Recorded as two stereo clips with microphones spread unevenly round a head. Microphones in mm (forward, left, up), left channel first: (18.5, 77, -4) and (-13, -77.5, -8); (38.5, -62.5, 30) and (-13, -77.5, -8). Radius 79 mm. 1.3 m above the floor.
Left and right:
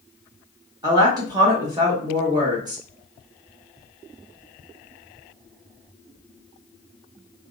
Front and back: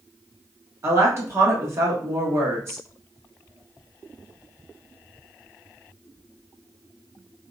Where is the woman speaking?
170° right, 1.0 m.